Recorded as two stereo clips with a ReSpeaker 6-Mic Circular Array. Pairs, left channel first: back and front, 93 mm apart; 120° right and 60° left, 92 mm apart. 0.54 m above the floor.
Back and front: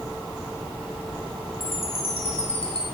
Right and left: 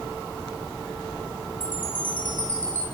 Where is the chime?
165° left, 9 m.